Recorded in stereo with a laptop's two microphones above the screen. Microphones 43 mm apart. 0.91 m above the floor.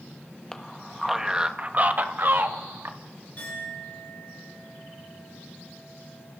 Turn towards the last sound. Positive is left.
turn(degrees=35)  # may be behind; listen again after turning